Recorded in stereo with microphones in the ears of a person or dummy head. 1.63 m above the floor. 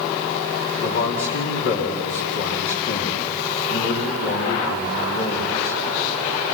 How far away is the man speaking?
About 3.5 m.